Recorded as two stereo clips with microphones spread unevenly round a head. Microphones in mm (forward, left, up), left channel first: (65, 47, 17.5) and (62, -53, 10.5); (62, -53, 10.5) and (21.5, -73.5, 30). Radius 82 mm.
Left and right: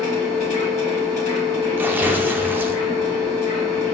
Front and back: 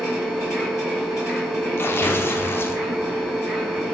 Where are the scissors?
No scissors in this recording.